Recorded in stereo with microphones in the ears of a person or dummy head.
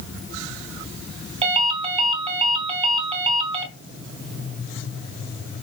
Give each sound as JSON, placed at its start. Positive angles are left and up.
{"t": 1.4, "sound": "a ringtone", "side_deg": -35, "distance_m": 3.0}